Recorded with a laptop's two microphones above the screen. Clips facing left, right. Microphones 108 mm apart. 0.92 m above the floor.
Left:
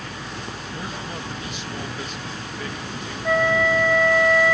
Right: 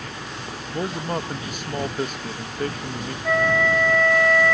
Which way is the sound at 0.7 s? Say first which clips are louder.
Right 9 dB; 50° right (ahead or behind).